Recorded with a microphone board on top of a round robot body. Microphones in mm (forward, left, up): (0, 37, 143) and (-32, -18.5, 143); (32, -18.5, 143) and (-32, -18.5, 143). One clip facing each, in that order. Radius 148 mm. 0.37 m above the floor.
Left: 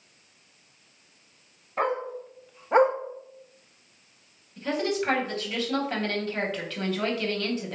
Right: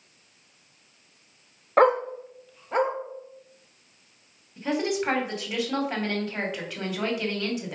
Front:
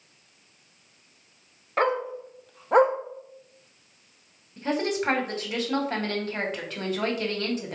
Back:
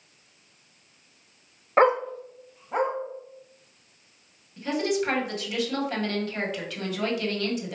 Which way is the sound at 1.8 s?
115° right.